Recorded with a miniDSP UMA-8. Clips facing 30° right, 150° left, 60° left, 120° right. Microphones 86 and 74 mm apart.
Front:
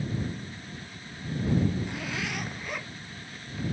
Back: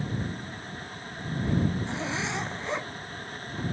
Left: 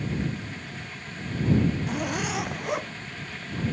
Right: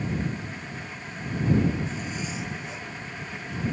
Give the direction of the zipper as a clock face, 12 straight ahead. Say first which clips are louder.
Back 3 dB, left 5 dB; 9 o'clock.